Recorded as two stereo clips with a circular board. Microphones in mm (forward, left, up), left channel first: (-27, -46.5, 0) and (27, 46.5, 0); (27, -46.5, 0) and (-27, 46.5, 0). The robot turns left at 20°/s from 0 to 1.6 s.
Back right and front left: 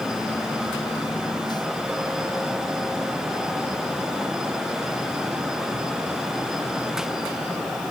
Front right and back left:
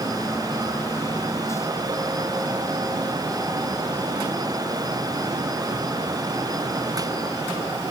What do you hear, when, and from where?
Only background noise.